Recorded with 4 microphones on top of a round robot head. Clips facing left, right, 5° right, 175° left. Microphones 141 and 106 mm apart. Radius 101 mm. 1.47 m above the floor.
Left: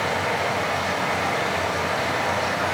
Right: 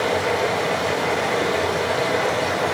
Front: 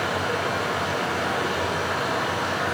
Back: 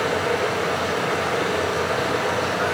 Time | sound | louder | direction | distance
0.0 | running water | right 4 dB, back 4 dB | 125° right | 7 m